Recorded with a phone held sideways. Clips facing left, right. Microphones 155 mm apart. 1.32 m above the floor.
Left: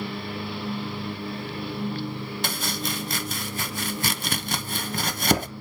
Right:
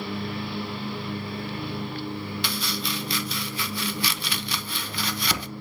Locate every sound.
2.4 s chopping: 45° left (ahead or behind), 0.8 m